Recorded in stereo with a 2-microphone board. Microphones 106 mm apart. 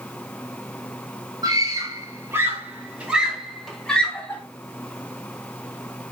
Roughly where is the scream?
Right.